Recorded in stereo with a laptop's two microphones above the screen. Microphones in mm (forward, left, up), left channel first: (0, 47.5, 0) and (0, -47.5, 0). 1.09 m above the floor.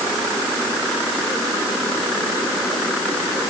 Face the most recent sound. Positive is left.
No sound to turn to.